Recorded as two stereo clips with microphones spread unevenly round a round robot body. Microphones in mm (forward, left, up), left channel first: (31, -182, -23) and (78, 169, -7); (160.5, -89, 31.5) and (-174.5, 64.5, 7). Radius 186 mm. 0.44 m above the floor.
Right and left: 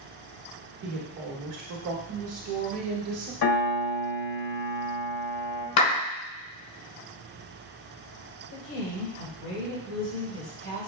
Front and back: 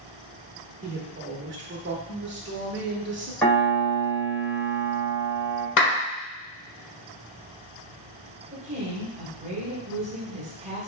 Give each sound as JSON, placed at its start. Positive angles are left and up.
{"t": 0.8, "sound": "a woman speaking", "azimuth_deg": 105, "distance_m": 1.0}
{"t": 3.4, "sound": "a piano", "azimuth_deg": -110, "distance_m": 2.0}
{"t": 5.8, "sound": "a clap", "azimuth_deg": -85, "distance_m": 1.8}
{"t": 8.5, "sound": "a woman speaking", "azimuth_deg": -140, "distance_m": 1.9}